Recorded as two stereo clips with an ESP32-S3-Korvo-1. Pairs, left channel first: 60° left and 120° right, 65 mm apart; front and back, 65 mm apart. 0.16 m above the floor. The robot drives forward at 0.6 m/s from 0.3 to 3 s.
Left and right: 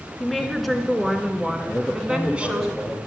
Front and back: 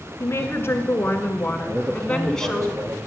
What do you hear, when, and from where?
0.2 s a woman speaking: 25° right, 2 m; by 2.7 s 85° right, 1.6 m
1.7 s a man speaking: 145° left, 5.5 m; by 3.0 s 150° left, 6 m